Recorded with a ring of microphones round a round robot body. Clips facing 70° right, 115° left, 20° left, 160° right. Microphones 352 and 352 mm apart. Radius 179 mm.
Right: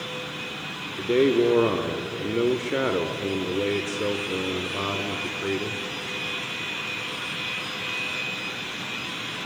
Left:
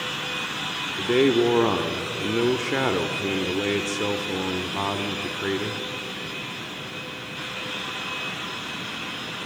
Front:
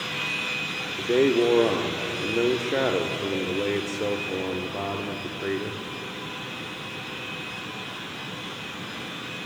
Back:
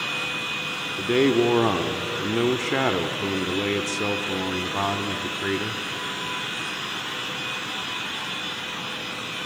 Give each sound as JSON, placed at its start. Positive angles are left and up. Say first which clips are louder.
{"t": 1.0, "sound": "a man speaking", "louder": "even, back 1 dB", "azimuth_deg": 180, "distance_m": 0.8}